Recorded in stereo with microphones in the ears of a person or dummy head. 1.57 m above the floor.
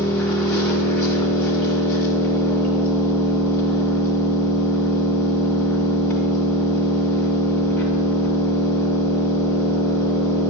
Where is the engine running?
20° left (ahead or behind), 2.5 m.